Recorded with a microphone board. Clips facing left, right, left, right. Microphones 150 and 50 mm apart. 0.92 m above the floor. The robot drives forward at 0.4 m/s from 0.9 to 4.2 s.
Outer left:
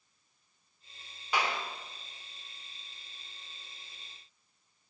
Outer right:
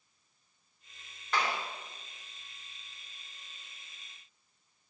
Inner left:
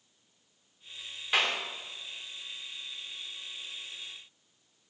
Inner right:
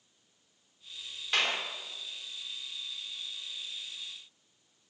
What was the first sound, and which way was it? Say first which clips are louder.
A clap: even, inner left 2 dB; 10° left (ahead or behind).